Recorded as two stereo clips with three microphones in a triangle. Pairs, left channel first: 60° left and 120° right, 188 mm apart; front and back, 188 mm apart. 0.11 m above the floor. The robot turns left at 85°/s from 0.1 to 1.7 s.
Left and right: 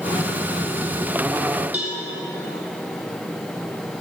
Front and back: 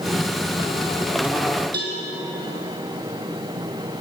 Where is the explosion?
No explosion in this recording.